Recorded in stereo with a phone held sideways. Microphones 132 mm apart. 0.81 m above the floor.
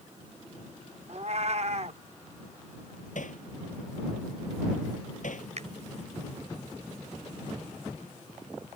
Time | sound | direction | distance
1.1 | a cat meowing | 55° right (ahead or behind) | ?
3.1 | hammering | 70° left (ahead or behind) | ?
5.6 | a finger snap | 60° right (ahead or behind) | ?